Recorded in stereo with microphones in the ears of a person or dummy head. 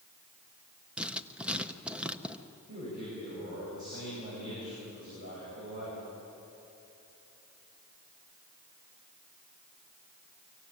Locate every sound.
1.0 s writing: centre (ahead or behind), 0.9 m
2.7 s a man speaking: 40° right (ahead or behind), 9.5 m